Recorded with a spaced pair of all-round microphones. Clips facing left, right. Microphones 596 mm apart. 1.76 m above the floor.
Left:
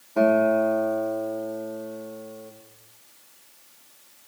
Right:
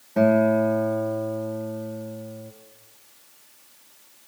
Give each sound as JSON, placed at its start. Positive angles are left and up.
{"t": 0.2, "sound": "a guitar", "side_deg": -45, "distance_m": 2.0}